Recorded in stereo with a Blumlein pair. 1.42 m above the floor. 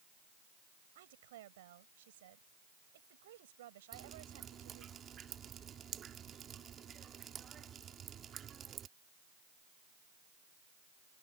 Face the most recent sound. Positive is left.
turn(degrees=-25)